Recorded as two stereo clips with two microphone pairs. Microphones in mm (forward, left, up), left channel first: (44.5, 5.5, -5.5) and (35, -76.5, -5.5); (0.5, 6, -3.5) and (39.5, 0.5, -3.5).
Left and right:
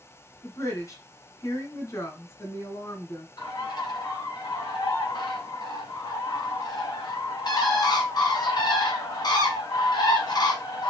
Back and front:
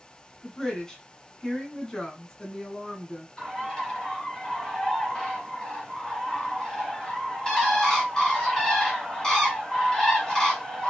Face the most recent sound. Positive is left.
turn(degrees=105)